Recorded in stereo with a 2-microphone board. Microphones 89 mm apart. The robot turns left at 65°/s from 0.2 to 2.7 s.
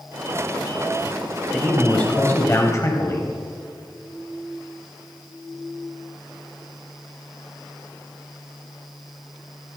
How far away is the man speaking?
About 1.2 m.